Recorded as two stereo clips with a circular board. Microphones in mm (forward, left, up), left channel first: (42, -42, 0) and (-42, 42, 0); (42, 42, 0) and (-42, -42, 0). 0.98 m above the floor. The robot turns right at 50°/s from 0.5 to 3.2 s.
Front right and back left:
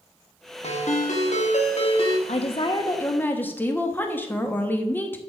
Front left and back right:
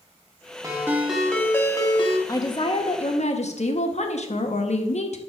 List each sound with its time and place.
0.6 s a ringtone: 75° right, 1.2 m; by 2.2 s 5° left, 1.2 m
2.3 s a woman speaking: 20° right, 1.2 m; by 5.2 s 30° left, 1.2 m